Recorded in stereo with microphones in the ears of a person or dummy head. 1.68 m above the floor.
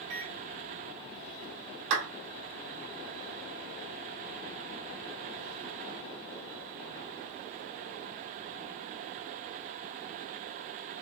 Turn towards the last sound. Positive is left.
turn(degrees=-75)  # may be behind; listen again after turning